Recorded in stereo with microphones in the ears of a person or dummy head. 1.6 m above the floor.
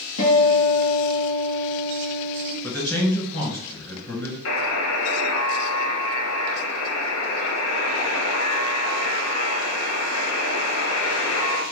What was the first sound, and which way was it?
A guitar, 75° left (ahead or behind).